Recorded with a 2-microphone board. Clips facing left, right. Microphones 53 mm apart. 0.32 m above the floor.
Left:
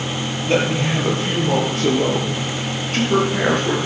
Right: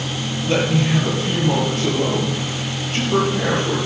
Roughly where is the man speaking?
Left.